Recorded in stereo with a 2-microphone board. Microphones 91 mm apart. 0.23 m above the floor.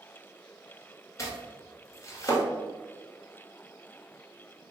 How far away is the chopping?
About 1.2 m.